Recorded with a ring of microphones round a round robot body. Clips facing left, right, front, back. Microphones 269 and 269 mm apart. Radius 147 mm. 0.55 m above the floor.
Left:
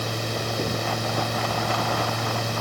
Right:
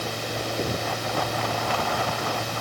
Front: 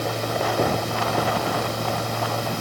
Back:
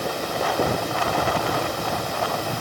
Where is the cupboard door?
No cupboard door in this recording.